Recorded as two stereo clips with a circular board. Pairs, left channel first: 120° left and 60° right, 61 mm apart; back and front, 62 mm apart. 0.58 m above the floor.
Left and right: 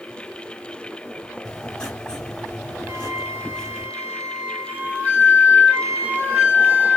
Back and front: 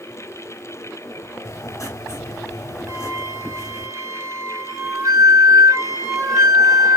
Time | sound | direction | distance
1.4 | writing | 165° right | 1.1 m
2.9 | a flute | 5° right | 1.0 m